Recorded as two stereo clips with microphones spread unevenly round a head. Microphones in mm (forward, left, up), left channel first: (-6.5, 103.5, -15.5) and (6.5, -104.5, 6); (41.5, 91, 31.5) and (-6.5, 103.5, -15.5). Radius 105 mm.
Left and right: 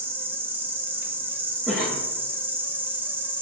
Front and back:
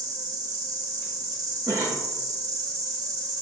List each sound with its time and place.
0.0 s an insect: 165° right, 0.9 m
1.7 s a cough: 175° right, 0.7 m